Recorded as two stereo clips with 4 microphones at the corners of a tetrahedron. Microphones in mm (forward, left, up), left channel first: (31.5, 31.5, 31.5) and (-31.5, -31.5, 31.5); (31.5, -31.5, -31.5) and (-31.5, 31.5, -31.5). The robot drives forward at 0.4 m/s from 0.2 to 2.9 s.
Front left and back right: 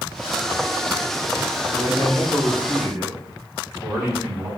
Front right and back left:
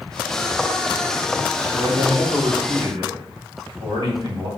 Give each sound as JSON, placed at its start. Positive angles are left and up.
{"t": 1.7, "sound": "a man speaking", "azimuth_deg": 160, "distance_m": 3.5}